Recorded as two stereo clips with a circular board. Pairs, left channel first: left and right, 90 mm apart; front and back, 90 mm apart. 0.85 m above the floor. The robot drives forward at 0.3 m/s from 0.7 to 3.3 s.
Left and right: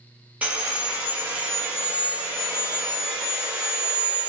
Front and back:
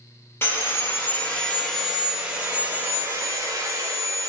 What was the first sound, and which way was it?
Sawing, 30° right.